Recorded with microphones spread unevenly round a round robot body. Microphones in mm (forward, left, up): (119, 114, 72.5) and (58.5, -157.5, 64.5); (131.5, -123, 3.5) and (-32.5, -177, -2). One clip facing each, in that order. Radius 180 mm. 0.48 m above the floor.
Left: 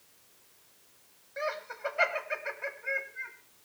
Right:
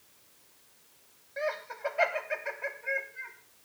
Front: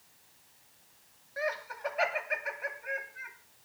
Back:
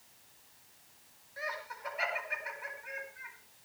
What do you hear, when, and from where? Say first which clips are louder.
1.4 s laughter: right 2 dB, front 8 dB; straight ahead, 3.5 m